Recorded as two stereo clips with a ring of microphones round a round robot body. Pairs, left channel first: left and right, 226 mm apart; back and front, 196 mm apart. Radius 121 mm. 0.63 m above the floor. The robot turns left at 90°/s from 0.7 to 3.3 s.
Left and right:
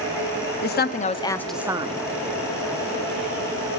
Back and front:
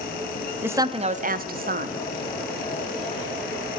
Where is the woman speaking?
75° left, 0.8 m; by 2.0 s 45° right, 0.8 m.